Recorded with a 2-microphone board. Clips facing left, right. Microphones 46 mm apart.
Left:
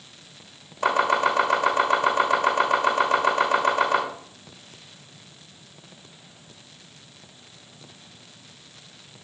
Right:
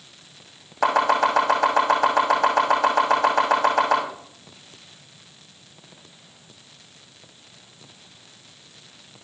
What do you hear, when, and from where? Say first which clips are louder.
0.8 s chopping: right 2 dB; 80° right, 6 m